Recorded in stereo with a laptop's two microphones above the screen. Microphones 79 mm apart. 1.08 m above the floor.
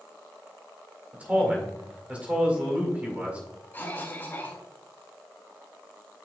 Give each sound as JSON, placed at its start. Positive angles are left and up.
{"t": 1.1, "sound": "a man speaking", "side_deg": -15, "distance_m": 1.9}
{"t": 3.7, "sound": "a cough", "side_deg": 25, "distance_m": 2.5}